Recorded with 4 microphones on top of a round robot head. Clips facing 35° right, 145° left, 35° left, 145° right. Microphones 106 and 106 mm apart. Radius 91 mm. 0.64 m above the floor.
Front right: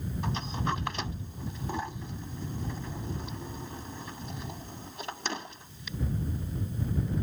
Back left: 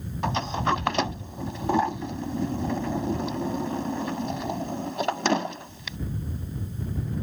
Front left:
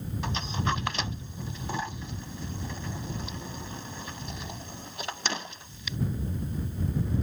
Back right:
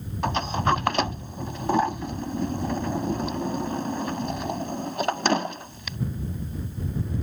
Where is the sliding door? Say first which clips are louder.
Back left 9 dB, back right 8 dB; 175° left.